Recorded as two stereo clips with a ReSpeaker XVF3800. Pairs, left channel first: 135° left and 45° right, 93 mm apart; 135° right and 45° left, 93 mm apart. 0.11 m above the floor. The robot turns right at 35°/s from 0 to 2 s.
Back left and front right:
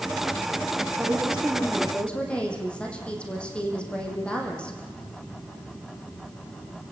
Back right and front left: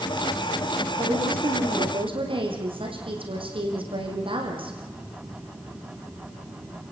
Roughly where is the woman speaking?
Ahead.